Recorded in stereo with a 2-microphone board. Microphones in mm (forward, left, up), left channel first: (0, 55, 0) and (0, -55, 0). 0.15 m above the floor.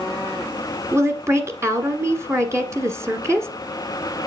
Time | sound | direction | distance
0.9 | a woman speaking | 25° right (ahead or behind) | 1.4 m